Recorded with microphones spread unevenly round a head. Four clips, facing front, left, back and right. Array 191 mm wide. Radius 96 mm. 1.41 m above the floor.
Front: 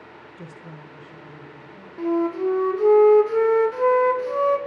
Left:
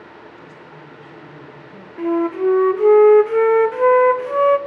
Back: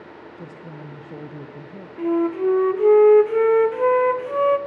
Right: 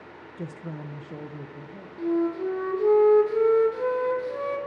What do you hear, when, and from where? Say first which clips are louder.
0.4 s a woman speaking: right 3 dB, back 2 dB; 85° right, 0.9 m; by 1.9 s straight behind, 1.4 m
2.0 s a flute: left 7 dB, back 2 dB; 90° left, 0.6 m